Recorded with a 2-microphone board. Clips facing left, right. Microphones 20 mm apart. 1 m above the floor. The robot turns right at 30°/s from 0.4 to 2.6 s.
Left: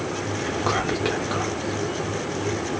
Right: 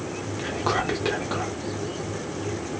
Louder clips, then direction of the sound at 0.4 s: Even; straight ahead.